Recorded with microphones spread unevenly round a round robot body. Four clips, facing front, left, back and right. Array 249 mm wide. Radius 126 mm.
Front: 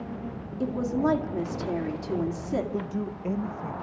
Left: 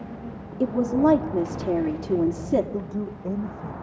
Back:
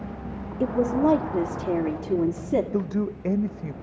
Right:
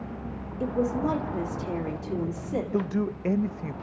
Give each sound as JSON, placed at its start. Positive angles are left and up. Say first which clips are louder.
{"t": 0.6, "sound": "a woman speaking", "louder": "left 6 dB, back 4 dB", "azimuth_deg": 105, "distance_m": 2.0}
{"t": 2.7, "sound": "a man speaking", "louder": "right 3 dB, back 5 dB", "azimuth_deg": -125, "distance_m": 0.5}